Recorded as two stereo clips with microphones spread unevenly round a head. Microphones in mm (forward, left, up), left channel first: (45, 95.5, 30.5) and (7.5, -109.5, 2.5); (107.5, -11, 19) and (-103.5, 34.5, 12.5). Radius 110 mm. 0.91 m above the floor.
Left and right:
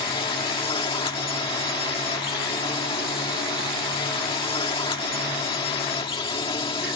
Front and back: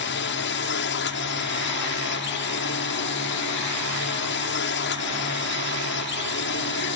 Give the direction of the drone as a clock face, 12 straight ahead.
12 o'clock.